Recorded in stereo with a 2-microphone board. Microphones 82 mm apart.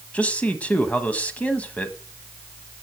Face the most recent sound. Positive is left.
turn(degrees=15)  # may be behind; listen again after turning